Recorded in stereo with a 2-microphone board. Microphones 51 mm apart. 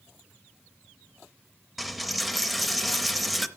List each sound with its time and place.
1.8 s a dropped coin: centre (ahead or behind), 0.7 m